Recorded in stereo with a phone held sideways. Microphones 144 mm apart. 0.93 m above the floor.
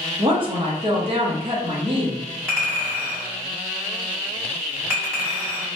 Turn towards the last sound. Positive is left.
turn(degrees=-15)  # may be behind; listen again after turning